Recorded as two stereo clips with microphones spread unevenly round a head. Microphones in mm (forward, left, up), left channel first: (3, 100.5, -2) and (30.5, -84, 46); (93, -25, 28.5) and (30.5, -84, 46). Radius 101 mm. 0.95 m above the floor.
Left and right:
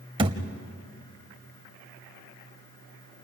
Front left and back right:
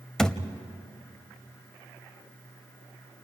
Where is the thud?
50° right, 0.9 m.